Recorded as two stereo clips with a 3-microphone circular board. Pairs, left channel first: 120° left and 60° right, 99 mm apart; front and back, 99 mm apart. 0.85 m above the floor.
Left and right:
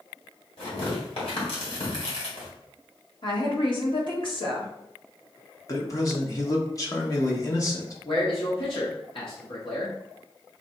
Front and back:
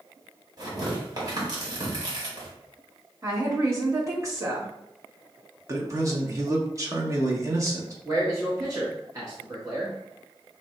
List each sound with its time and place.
0.6 s tearing paper: 135° left, 1.9 m
3.2 s a woman speaking: 130° left, 1.4 m
5.7 s a man speaking: 145° left, 1.1 m
8.1 s a man speaking: 130° left, 1.2 m